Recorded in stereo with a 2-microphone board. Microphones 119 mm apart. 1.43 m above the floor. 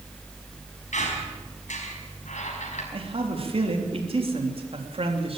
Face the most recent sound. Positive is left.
turn(degrees=-50)  # may be behind; listen again after turning